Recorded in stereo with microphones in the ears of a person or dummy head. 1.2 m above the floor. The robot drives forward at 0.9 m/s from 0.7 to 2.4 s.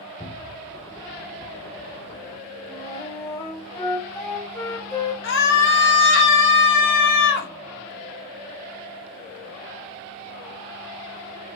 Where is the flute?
15° left (ahead or behind), 2.5 m.